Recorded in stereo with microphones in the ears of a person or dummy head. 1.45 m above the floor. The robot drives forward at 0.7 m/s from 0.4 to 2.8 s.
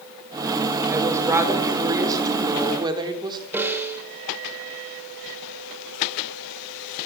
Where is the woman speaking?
20° right (ahead or behind), 6 m; by 3.4 s 25° right (ahead or behind), 4.5 m.